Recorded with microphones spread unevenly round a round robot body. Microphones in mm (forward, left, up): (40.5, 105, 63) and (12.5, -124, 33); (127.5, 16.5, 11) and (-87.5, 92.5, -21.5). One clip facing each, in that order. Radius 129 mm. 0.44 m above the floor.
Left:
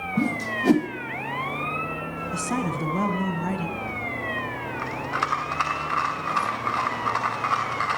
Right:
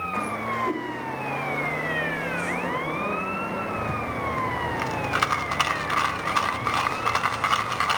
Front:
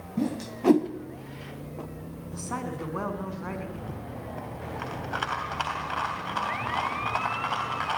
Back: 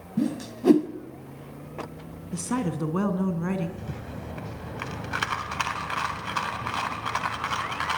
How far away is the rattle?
About 2.5 m.